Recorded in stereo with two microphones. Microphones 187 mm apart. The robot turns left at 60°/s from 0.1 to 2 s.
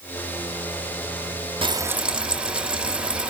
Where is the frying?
30° right (ahead or behind), 0.7 m; by 3.3 s 5° right (ahead or behind), 0.7 m.